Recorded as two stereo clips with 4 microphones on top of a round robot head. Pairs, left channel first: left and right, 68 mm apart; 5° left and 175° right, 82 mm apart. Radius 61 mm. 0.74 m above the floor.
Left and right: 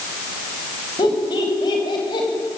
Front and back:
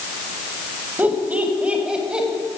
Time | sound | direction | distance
1.0 | laughter | 115° left | 5.5 m